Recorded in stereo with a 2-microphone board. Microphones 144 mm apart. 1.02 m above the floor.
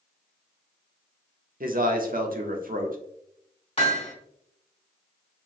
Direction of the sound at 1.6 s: 75° right (ahead or behind).